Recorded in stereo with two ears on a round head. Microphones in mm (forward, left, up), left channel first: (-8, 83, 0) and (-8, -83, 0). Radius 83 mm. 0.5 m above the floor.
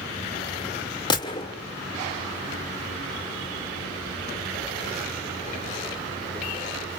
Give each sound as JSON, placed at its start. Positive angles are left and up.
{"t": 1.1, "sound": "a gunshot", "side_deg": 25, "distance_m": 1.9}